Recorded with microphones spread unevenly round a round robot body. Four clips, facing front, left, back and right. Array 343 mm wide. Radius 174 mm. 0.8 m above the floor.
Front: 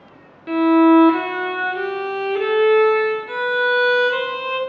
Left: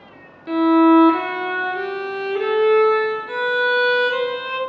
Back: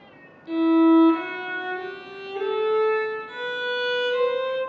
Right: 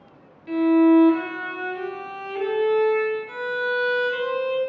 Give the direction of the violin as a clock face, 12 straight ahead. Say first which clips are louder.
Left 3 dB, front 4 dB; 11 o'clock.